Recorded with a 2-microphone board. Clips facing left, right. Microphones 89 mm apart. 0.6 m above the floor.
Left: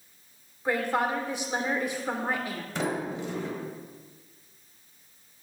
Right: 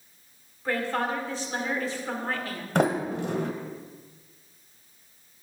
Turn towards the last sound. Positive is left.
turn(degrees=-60)  # may be behind; listen again after turning